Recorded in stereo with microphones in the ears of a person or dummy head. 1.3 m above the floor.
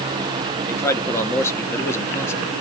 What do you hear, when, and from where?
0.7 s a man speaking: 15° left (ahead or behind), 1.3 m